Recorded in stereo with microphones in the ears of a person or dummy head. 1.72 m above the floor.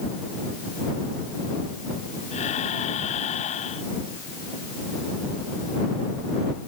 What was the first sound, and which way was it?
Breathing, 30° left (ahead or behind).